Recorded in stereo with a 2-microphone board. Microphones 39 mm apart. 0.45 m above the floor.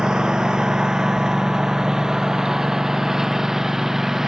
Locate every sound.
0.0 s a lawn mower: 20° right (ahead or behind); by 4.3 s 10° right (ahead or behind)